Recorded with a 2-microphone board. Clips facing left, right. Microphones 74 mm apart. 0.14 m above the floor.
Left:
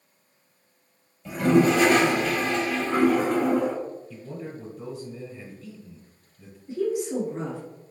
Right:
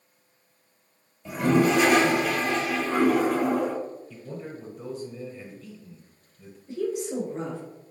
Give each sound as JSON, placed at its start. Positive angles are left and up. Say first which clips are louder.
{"t": 1.2, "sound": "a toilet flushing", "louder": "left 2 dB", "side_deg": -5, "distance_m": 1.3}
{"t": 4.1, "sound": "a man speaking", "louder": "left 1 dB", "side_deg": 0, "distance_m": 1.1}
{"t": 6.7, "sound": "a woman speaking", "louder": "left 3 dB", "side_deg": 15, "distance_m": 1.6}